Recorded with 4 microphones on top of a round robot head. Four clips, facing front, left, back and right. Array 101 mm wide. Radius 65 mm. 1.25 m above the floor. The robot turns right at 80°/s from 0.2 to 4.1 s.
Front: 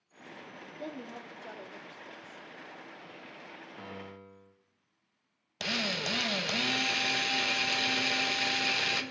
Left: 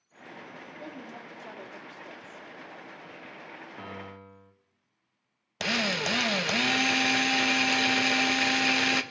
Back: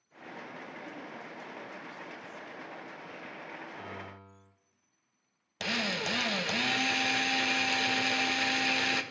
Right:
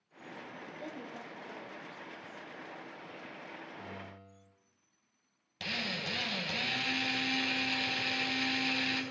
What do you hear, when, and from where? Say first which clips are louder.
0.8 s a woman speaking: left 2 dB, front 2 dB; 10° left, 3 m; by 2.5 s 140° left, 3 m
3.8 s a piano: left 5 dB, back 1 dB; 65° left, 2.5 m; by 4.5 s 95° left, 2.5 m
5.6 s a drill: left 10 dB, back 1 dB; 85° left, 1.5 m